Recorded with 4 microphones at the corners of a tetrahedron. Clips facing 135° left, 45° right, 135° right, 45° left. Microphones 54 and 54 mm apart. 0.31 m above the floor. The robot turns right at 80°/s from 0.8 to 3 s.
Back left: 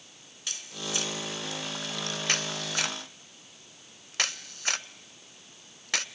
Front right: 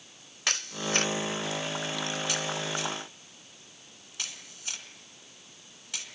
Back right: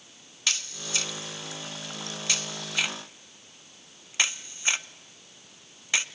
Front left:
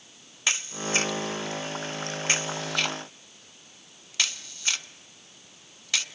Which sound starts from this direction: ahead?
A camera shutter, at 0.5 s.